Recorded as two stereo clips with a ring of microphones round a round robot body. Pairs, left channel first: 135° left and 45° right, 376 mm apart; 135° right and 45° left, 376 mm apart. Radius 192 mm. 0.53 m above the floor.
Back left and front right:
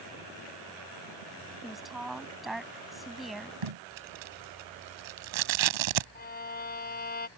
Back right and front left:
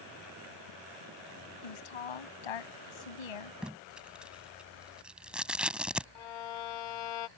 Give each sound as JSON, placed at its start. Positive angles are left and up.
{"t": 1.6, "sound": "a woman speaking", "azimuth_deg": -135}
{"t": 3.6, "sound": "tape being pulled", "azimuth_deg": -45}
{"t": 6.2, "sound": "a violin", "azimuth_deg": -160}